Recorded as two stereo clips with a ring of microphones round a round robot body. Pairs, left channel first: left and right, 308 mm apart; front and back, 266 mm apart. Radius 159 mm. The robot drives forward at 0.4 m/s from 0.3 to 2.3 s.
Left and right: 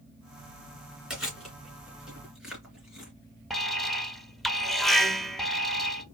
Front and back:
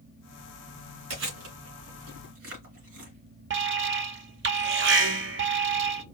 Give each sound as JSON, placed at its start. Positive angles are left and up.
{"t": 1.1, "sound": "chewing", "azimuth_deg": 180, "distance_m": 2.5}
{"t": 3.5, "sound": "an alarm", "azimuth_deg": 180, "distance_m": 0.7}